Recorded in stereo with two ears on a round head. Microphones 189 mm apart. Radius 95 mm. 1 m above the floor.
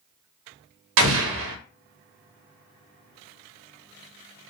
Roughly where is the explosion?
Right.